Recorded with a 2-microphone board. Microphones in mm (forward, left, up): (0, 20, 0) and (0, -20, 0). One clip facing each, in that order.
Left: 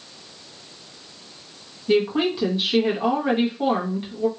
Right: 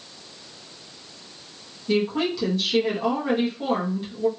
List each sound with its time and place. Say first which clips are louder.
1.9 s a woman speaking: left 3 dB; 25° left (ahead or behind), 1.2 m